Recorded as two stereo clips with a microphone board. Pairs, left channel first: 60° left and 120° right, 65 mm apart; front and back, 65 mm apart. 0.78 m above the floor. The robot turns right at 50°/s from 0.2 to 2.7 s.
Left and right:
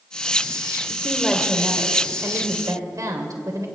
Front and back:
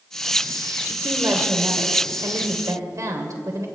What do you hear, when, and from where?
0.9 s a woman speaking: 125° left, 2.5 m; by 3.6 s 145° right, 2.5 m